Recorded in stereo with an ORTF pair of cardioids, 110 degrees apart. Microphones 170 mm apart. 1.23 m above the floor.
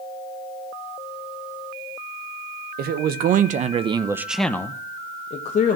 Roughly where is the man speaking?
Right.